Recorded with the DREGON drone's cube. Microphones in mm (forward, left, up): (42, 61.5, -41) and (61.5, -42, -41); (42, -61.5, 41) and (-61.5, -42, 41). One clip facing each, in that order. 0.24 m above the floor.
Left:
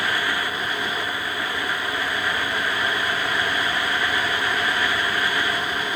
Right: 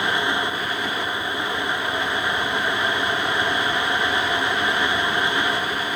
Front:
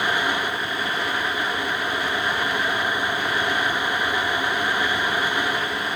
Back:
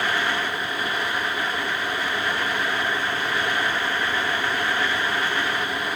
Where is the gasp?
I don't hear a gasp.